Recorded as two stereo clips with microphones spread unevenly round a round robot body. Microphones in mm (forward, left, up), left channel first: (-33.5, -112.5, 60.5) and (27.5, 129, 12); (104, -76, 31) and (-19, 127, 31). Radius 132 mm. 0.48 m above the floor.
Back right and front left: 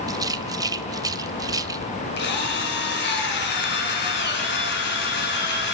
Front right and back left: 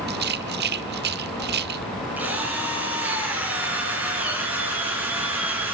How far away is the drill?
About 3.5 m.